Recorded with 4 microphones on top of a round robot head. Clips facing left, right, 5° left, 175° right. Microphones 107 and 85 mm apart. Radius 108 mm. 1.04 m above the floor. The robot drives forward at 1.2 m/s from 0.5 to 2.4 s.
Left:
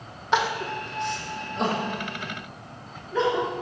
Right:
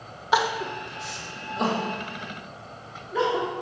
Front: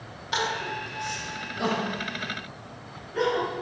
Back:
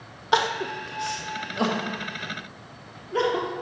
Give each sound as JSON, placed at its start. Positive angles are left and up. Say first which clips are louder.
{"t": 0.3, "sound": "crying", "louder": "right 1 dB, back 5 dB", "azimuth_deg": -170, "distance_m": 1.3}